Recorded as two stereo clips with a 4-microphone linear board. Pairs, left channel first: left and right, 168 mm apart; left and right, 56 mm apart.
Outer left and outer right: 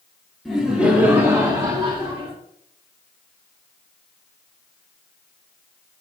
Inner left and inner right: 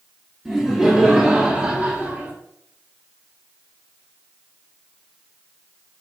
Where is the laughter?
Centre (ahead or behind), 1.6 m; by 2.3 s 35° right (ahead or behind), 1.6 m.